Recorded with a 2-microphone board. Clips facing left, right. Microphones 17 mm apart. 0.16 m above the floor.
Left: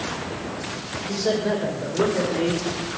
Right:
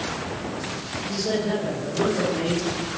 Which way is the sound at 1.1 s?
80° left.